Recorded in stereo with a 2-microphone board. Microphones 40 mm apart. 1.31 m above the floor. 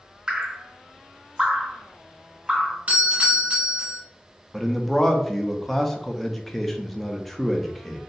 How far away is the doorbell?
About 1.3 m.